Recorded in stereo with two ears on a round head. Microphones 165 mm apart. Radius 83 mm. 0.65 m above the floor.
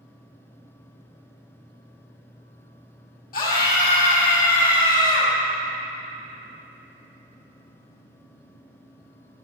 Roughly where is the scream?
Left.